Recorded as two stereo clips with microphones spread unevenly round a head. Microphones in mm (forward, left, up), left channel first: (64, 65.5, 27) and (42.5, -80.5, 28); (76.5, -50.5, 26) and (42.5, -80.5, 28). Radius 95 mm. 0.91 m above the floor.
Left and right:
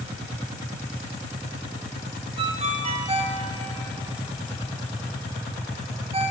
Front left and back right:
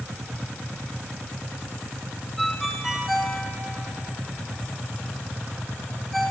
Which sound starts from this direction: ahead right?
A ringtone, at 2.4 s.